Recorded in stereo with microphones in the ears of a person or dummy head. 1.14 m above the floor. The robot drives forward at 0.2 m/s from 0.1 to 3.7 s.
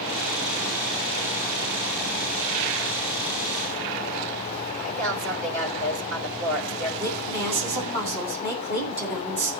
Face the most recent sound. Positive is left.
turn(degrees=-50)  # may be behind; listen again after turning